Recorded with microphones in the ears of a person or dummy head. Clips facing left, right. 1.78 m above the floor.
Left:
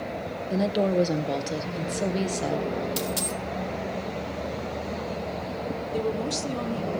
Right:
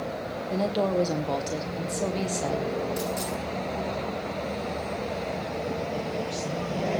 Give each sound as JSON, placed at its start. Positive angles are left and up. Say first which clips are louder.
{"t": 0.5, "sound": "a woman speaking", "louder": "left 2 dB", "side_deg": 20, "distance_m": 1.5}
{"t": 3.0, "sound": "a dropped coin", "louder": "even", "side_deg": 55, "distance_m": 2.0}
{"t": 5.9, "sound": "a woman speaking", "louder": "left 3 dB", "side_deg": 70, "distance_m": 2.0}